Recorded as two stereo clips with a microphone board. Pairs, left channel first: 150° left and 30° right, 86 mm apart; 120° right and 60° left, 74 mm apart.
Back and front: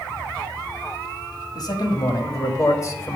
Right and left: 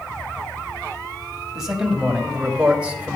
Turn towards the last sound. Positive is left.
turn(degrees=120)